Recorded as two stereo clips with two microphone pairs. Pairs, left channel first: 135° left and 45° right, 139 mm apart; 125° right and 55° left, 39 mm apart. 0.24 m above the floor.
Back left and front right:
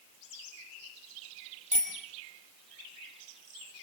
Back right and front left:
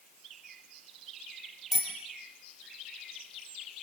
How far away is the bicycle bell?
About 5 m.